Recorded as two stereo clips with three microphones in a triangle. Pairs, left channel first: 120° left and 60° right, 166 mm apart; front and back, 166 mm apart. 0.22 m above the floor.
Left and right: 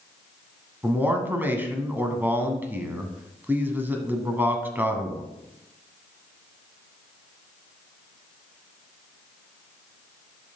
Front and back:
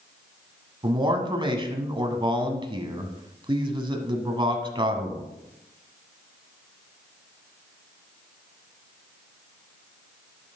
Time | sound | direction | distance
0.8 | a man speaking | 135° right | 1.3 m